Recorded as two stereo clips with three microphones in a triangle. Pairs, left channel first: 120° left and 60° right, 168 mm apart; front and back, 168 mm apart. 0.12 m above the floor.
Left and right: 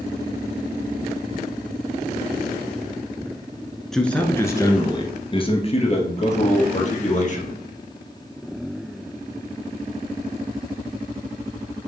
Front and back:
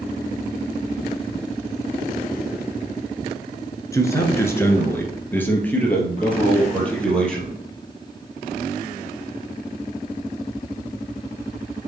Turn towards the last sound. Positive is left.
turn(degrees=85)